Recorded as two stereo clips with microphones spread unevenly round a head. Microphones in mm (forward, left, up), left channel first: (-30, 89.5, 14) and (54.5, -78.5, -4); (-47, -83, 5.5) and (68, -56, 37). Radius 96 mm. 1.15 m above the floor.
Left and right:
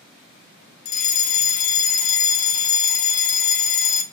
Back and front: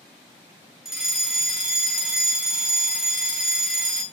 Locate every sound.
0.8 s a fire alarm: 120° left, 1.1 m